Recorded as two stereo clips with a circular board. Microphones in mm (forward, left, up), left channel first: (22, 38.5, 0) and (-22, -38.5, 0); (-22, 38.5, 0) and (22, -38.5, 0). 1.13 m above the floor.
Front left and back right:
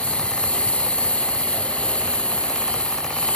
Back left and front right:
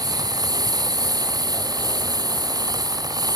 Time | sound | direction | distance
0.0 | a lawn mower | 15° right | ?